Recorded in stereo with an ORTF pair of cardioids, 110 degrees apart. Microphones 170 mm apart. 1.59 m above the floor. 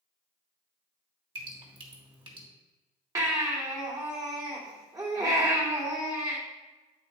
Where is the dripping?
30° right, 3 m.